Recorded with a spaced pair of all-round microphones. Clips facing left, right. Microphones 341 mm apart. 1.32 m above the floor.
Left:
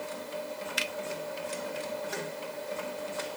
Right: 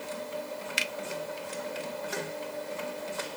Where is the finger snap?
35° right (ahead or behind), 0.5 m.